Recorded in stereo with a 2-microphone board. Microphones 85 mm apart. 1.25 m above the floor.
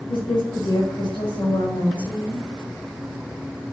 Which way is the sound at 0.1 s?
75° left (ahead or behind).